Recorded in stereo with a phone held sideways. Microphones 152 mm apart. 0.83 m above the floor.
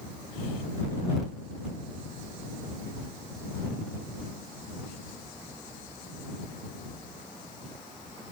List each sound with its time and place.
Only background noise.